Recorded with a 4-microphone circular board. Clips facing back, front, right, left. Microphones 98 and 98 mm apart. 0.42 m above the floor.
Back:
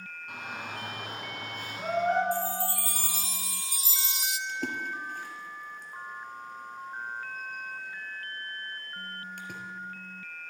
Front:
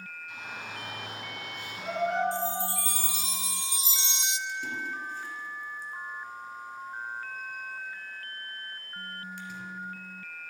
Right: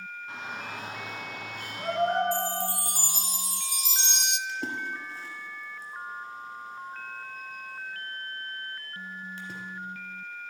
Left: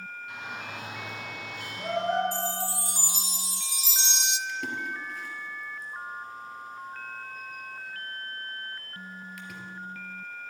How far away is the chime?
About 0.5 m.